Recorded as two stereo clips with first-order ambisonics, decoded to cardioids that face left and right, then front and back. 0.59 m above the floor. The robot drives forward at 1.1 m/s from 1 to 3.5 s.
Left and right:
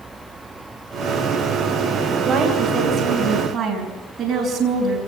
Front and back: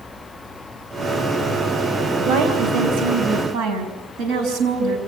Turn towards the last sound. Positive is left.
turn(degrees=-160)